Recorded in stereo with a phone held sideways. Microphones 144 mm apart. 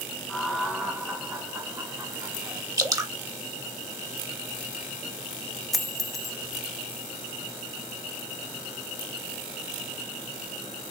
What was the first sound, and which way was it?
Laughter, 5° left (ahead or behind).